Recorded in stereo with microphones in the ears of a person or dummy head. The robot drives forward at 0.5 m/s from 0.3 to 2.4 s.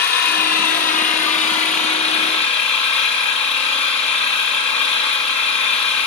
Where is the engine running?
50° left (ahead or behind), 1.9 m; by 6.1 s 35° left (ahead or behind), 2.5 m.